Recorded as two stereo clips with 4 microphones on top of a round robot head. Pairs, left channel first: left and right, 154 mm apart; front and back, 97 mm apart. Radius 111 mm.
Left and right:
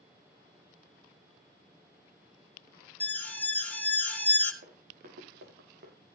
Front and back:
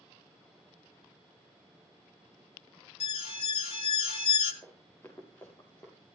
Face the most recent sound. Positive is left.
turn(degrees=-75)